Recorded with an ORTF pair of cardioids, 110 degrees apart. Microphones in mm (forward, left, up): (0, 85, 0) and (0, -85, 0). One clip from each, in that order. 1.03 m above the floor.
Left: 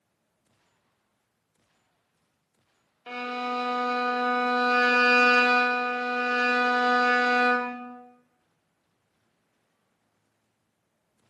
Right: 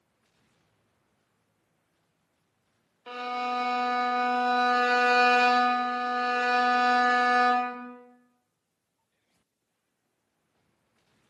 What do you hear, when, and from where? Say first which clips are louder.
3.1 s a violin: even; 10° left, 0.5 m